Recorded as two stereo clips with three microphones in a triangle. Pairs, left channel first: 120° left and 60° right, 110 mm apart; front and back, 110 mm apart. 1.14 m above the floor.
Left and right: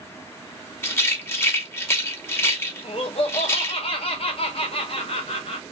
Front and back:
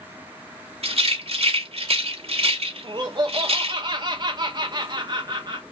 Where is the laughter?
135° left, 0.5 m.